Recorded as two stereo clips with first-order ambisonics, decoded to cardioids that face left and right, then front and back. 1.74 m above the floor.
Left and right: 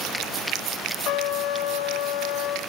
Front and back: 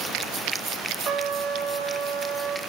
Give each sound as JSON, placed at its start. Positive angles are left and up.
{"t": 1.1, "sound": "a trumpet", "azimuth_deg": 125, "distance_m": 2.0}